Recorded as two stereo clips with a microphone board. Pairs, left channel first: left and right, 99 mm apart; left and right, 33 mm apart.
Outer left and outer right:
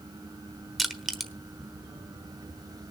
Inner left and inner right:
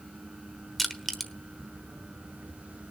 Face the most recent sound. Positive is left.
turn(degrees=0)  # may be behind; listen again after turning